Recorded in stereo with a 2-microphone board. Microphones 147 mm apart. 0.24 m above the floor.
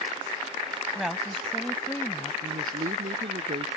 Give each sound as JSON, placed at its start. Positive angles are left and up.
{"t": 0.9, "sound": "a woman speaking", "side_deg": -5}
{"t": 2.4, "sound": "a woman speaking", "side_deg": -80}